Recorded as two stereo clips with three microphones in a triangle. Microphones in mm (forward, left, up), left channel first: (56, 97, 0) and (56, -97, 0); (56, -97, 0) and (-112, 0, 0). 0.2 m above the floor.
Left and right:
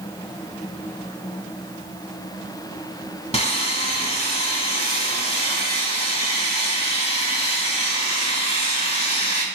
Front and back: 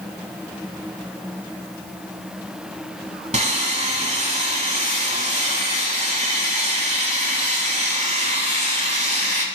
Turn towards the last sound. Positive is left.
turn(degrees=125)